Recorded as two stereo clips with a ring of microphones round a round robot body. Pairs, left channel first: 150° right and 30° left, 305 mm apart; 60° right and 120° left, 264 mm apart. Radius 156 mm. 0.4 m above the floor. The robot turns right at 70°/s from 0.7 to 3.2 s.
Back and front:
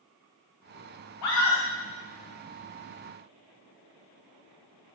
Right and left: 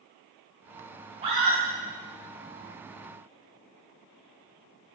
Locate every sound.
1.2 s a scream: 175° right, 2.5 m; by 1.6 s 145° right, 2.5 m